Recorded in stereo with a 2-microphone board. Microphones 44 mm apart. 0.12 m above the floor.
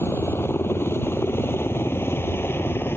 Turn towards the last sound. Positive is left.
turn(degrees=60)  # may be behind; listen again after turning